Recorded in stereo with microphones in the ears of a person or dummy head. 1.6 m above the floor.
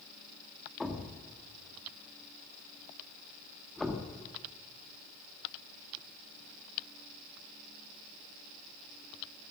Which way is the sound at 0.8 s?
Centre (ahead or behind).